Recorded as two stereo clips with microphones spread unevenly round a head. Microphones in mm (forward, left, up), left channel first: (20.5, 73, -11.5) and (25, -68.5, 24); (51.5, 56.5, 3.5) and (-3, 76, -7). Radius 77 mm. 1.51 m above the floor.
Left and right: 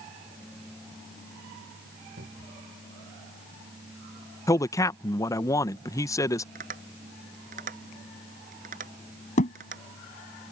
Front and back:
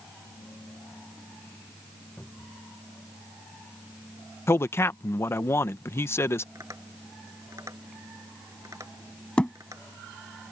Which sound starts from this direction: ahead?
A man speaking, at 4.5 s.